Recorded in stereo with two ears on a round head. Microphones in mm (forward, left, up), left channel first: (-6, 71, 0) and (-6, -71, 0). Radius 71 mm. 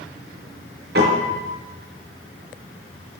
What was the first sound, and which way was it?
A piano, 75° right (ahead or behind).